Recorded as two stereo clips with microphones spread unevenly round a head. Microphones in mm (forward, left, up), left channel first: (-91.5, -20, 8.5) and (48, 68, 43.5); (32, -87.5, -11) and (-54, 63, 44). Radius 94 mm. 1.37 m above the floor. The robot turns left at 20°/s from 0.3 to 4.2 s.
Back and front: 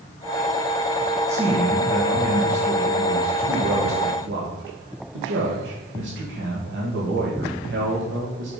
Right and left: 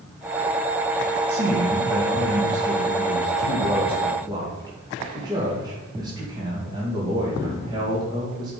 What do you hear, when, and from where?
1.3 s a man speaking: 105° left, 2 m; by 8.5 s 50° left, 2 m